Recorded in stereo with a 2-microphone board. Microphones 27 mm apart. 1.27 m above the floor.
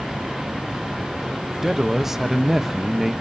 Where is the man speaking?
10° right (ahead or behind), 1.1 m.